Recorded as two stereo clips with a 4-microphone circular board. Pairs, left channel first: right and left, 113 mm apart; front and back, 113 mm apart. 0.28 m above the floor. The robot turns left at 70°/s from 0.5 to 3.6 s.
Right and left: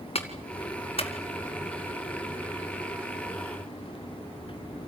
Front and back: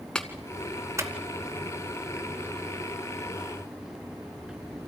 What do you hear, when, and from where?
0.1 s a clap: 80° right, 2.0 m; by 1.1 s 125° right, 2.0 m